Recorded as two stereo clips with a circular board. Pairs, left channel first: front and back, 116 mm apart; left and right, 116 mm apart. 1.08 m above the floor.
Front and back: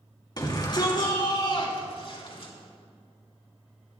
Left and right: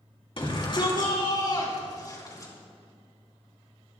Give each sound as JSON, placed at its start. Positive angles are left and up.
{"t": 0.4, "sound": "a shout", "azimuth_deg": 50, "distance_m": 3.0}